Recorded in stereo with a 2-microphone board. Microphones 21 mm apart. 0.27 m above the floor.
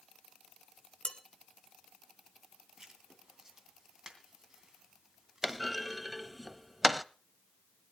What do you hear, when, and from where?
1.1 s dishes clattering: 50° left (ahead or behind), 1.4 m
2.8 s writing: 25° right (ahead or behind), 2.5 m
5.4 s a clunk: 5° right (ahead or behind), 0.5 m